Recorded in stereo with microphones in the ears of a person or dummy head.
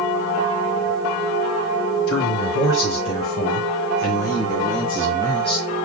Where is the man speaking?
85° left, 3 m; by 5.7 s 25° left (ahead or behind), 1.9 m.